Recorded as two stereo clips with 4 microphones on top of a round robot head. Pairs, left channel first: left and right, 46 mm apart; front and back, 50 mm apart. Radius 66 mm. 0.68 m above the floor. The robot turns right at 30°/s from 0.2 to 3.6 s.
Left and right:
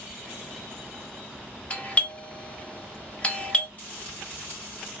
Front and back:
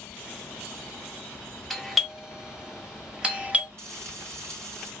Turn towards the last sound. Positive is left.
turn(degrees=150)